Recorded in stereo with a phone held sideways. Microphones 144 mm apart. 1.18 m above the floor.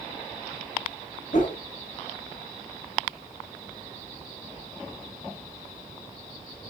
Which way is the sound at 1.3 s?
55° left (ahead or behind).